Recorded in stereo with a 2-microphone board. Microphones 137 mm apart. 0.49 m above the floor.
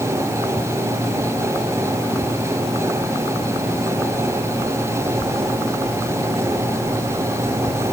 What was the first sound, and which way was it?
Only background noise.